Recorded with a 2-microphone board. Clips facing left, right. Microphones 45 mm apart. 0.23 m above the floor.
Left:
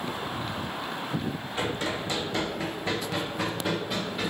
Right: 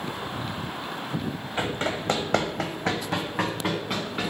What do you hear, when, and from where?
1.6 s running footsteps: 35° right (ahead or behind), 0.8 m; by 4.3 s 40° right (ahead or behind), 1.7 m